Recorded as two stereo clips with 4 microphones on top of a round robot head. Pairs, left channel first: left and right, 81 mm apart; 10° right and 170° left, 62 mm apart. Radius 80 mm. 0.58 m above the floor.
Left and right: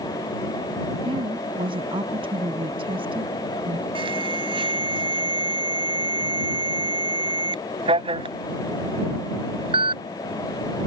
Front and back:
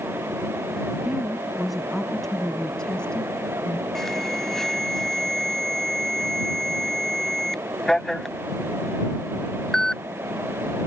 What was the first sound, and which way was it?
A woman speaking, 105° right.